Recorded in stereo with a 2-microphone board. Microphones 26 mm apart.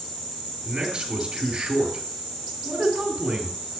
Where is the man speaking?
35° right (ahead or behind), 3 m.